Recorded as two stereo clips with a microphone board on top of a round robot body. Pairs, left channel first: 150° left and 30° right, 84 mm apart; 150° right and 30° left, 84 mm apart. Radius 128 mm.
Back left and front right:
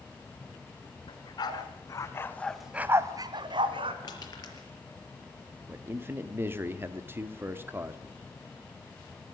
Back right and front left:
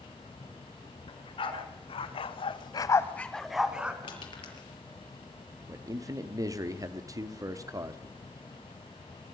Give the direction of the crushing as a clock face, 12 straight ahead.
6 o'clock.